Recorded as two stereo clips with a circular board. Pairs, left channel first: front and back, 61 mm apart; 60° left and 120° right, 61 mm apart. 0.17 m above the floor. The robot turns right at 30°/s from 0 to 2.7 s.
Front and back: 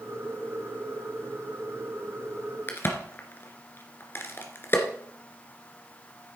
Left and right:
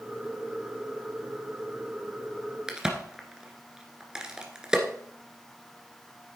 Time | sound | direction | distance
2.7 | a crack | 45° right | 1.7 m